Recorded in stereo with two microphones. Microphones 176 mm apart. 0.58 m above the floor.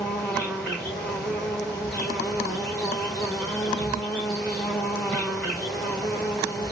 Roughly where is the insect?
Centre.